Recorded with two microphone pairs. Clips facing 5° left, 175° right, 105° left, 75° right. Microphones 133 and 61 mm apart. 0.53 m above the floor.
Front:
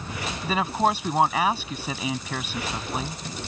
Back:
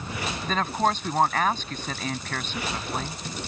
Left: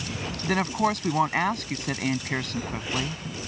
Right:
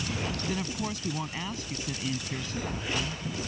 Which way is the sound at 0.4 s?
85° left.